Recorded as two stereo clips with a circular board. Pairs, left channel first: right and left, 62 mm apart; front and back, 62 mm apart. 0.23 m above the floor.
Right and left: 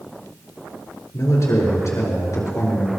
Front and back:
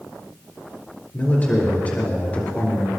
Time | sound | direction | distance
1.1 | a man speaking | 60° right | 5 m